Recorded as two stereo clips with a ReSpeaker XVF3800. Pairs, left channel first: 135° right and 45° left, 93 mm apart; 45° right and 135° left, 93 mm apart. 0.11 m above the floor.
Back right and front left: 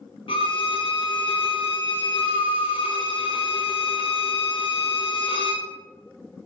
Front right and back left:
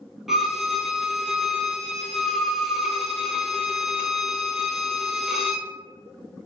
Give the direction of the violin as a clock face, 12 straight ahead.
5 o'clock.